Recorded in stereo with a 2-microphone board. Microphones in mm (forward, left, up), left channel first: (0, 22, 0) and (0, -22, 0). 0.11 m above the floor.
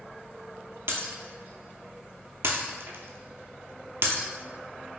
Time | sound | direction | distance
0.9 | breaking glass | 60° right (ahead or behind) | 0.7 m